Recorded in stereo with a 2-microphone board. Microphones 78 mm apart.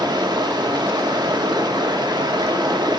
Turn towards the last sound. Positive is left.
turn(degrees=-65)  # may be behind; listen again after turning